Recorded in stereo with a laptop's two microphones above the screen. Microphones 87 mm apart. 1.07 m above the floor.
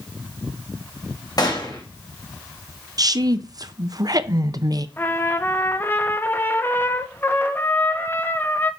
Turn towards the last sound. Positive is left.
turn(degrees=25)  # may be behind; listen again after turning